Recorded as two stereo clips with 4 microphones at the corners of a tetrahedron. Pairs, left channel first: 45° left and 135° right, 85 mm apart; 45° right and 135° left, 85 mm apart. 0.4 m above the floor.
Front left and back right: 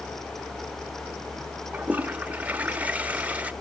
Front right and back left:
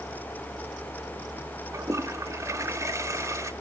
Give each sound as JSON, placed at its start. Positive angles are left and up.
{"t": 1.7, "sound": "a toilet flushing", "azimuth_deg": 160, "distance_m": 0.8}